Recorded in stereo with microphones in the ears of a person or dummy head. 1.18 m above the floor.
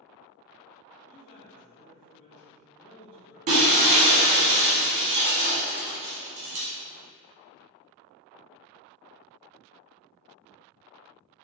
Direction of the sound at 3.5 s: 40° right (ahead or behind).